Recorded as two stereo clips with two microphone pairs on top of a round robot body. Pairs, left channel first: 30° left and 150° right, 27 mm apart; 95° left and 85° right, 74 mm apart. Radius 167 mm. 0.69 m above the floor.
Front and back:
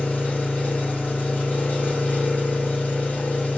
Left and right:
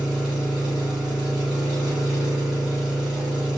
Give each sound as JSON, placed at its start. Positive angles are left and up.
{"t": 0.0, "sound": "an engine running", "azimuth_deg": -5, "distance_m": 2.0}